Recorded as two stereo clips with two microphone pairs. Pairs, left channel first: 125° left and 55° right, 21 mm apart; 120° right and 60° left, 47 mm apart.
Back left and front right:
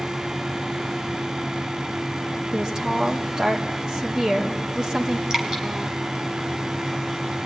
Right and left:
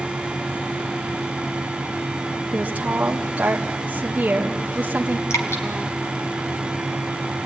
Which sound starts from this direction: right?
Dripping, at 5.3 s.